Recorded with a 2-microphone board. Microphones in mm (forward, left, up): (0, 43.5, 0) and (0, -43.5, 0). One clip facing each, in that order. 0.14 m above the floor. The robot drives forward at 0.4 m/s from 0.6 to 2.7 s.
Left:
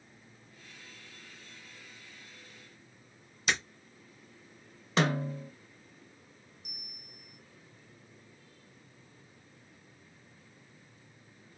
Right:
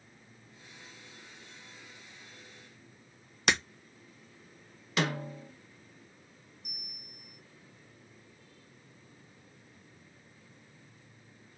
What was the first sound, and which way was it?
Breaking glass, 80° right.